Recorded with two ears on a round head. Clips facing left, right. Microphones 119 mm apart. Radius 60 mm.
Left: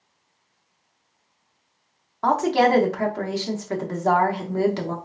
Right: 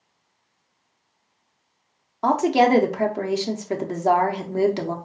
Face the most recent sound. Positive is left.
turn(degrees=-20)  # may be behind; listen again after turning